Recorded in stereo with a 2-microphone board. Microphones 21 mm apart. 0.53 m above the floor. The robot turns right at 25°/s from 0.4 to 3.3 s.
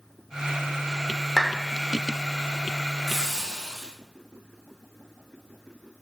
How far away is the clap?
About 0.9 m.